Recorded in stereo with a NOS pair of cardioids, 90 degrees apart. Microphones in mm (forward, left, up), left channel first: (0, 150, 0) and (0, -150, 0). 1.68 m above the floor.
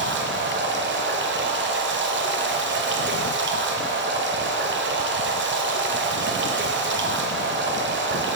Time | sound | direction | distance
0.0 | running water | 40° right | 0.7 m